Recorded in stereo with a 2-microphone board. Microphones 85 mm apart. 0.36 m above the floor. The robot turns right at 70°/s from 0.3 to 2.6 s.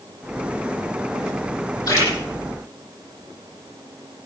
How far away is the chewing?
I don't hear chewing.